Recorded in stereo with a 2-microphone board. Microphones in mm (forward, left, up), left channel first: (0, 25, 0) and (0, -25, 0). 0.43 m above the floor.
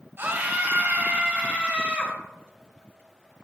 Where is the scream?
50° right (ahead or behind), 2.5 m; by 2.2 s 30° right (ahead or behind), 3.5 m.